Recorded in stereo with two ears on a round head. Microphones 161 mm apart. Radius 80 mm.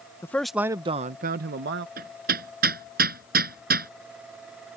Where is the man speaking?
15° left (ahead or behind); by 1.9 s 70° right (ahead or behind).